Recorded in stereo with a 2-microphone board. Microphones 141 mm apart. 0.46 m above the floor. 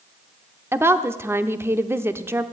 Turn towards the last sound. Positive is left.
turn(degrees=-15)  # may be behind; listen again after turning